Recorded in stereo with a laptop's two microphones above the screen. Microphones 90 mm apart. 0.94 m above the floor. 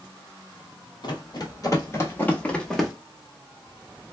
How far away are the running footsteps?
About 1.4 m.